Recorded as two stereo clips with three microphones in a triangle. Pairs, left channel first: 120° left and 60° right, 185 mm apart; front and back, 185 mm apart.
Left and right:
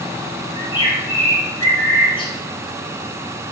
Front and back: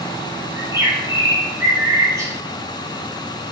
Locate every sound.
0.6 s a bird: 130° left, 0.7 m